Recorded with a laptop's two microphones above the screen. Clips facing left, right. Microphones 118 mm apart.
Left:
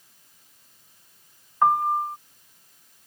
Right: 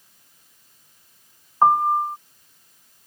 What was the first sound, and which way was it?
A piano, 25° right (ahead or behind).